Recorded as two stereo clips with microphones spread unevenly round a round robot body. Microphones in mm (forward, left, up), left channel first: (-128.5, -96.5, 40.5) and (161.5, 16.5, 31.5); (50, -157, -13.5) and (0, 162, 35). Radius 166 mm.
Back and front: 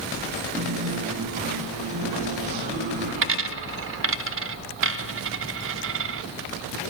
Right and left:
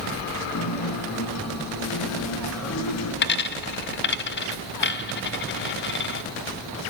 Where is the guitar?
45° right, 3.5 m.